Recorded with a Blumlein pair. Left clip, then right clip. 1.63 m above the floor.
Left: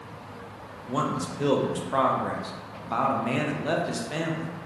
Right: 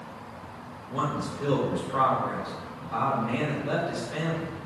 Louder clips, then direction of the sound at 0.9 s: Left 2 dB; 50° left.